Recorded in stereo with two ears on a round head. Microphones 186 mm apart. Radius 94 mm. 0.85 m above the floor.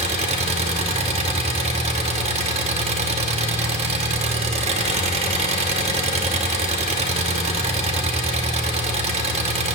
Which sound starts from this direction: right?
An engine running, at 0.0 s.